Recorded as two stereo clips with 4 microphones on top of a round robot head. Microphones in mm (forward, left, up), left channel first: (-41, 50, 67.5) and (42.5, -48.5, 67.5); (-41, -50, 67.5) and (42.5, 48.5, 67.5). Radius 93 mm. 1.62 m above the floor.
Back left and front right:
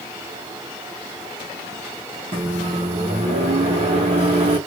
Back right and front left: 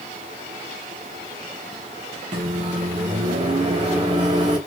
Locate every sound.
2.3 s a microwave: 5° right, 1.2 m